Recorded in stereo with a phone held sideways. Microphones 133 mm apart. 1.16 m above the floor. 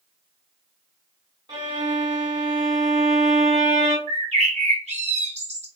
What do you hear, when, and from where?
1.5 s a violin: 35° right (ahead or behind), 1.4 m
4.1 s a bird: 55° right (ahead or behind), 1.2 m